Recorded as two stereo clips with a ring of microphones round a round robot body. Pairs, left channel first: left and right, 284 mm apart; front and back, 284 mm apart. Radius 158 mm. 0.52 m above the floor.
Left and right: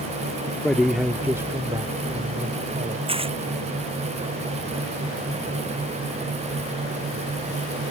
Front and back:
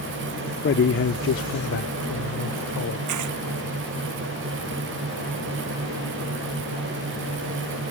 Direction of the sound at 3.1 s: 160° right.